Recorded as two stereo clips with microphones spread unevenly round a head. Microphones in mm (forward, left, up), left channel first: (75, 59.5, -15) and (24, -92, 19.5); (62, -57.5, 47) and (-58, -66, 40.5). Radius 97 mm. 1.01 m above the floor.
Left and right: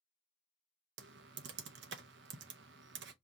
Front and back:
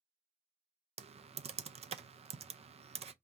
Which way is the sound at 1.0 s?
145° right.